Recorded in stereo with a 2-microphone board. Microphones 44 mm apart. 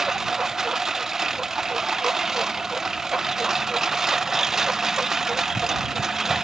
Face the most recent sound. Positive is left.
turn(degrees=-10)  # may be behind; listen again after turning